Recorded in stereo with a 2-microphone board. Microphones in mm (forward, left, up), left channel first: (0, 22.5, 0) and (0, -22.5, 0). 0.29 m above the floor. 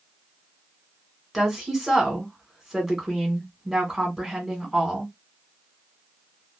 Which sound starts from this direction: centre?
A woman speaking, at 1.3 s.